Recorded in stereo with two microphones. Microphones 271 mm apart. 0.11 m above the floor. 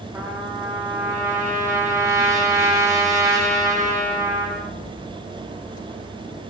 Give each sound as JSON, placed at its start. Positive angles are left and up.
{"t": 0.1, "sound": "a trumpet", "side_deg": -10, "distance_m": 9.0}